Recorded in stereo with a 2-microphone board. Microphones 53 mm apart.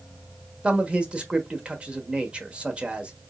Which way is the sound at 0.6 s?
20° right (ahead or behind).